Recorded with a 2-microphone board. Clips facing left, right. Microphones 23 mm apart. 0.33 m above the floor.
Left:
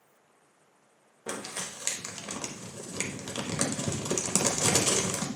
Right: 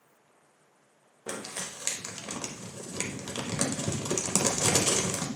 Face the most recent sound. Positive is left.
turn(degrees=5)  # may be behind; listen again after turning